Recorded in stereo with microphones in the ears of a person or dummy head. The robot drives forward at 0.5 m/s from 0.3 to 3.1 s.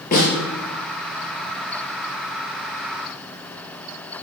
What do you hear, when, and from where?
0.1 s a snare drum: 45° left (ahead or behind), 6.5 m